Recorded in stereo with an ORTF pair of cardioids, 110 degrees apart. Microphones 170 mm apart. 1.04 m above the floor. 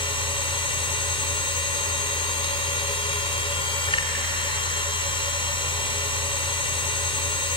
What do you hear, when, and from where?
0.0 s a machine running: 35° left, 2.5 m